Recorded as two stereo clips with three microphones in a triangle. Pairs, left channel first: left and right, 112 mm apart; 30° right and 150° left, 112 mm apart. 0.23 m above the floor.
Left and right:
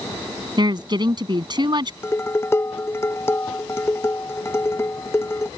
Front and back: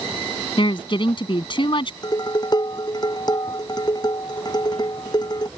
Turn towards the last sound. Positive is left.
turn(degrees=20)